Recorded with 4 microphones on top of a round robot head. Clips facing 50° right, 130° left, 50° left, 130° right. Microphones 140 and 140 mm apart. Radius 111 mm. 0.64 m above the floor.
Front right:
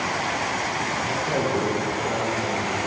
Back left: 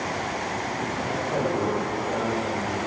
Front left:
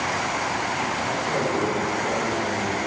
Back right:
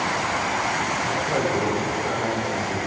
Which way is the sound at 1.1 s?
55° right.